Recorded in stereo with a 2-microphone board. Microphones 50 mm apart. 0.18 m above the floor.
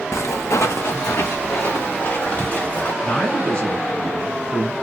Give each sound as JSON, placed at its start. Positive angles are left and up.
{"t": 0.1, "sound": "footsteps", "side_deg": 75, "distance_m": 0.5}
{"t": 3.0, "sound": "a man speaking", "side_deg": 20, "distance_m": 1.4}